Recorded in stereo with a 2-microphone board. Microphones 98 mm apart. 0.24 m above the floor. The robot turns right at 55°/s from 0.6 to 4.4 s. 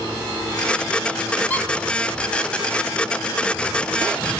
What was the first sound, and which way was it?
A squeak, 15° left (ahead or behind).